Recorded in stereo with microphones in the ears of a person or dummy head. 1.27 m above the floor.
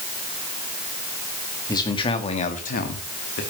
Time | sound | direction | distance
1.7 | a man speaking | 20° left (ahead or behind) | 2.0 m